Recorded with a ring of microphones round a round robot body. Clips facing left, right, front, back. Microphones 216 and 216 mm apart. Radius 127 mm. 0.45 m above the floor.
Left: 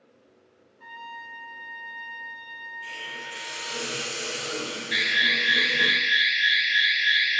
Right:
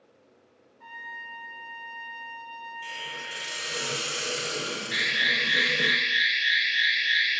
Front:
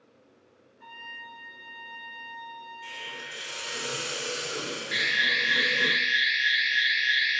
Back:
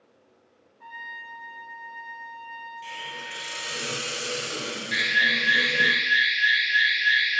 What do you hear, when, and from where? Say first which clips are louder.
0.8 s a trumpet: left 3 dB, back 3 dB; 40° left, 1.2 m
2.8 s a hiss: left 2 dB, back 2 dB; 140° right, 1.8 m
4.9 s an alarm: left 2 dB, back 3 dB; 60° left, 1.1 m